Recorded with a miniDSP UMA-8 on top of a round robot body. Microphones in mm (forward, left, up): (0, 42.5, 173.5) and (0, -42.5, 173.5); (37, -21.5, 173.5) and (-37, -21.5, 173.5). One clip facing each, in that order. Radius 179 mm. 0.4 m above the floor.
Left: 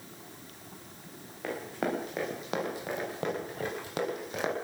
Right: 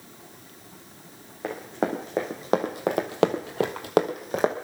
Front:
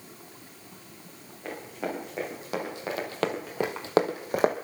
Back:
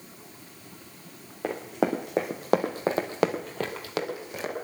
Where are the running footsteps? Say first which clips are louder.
Right 5 dB, back 7 dB; 160° right, 3 m; by 4.5 s 35° right, 1.9 m.